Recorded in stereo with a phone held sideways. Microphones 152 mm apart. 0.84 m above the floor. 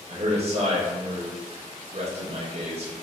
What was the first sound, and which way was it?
A man speaking, 45° right (ahead or behind).